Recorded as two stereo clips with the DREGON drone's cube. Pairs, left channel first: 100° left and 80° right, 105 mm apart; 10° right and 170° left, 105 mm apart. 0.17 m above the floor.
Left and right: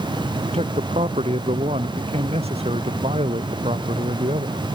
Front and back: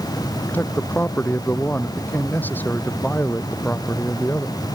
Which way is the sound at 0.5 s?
85° right.